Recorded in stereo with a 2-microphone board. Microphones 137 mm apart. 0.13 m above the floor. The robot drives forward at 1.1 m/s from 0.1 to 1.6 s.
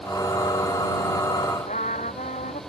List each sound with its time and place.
1.7 s a trumpet: 70° left (ahead or behind)